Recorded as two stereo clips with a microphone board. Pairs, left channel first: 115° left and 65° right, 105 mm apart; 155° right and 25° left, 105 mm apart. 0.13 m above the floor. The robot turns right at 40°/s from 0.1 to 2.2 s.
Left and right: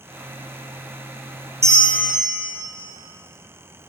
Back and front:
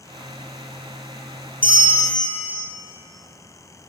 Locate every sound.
1.6 s a bell: 10° right, 0.7 m; by 2.6 s 15° left, 0.7 m